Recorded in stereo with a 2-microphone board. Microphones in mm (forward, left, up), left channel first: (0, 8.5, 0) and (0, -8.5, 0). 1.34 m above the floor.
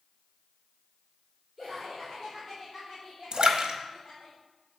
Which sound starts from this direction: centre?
Laughter, at 1.6 s.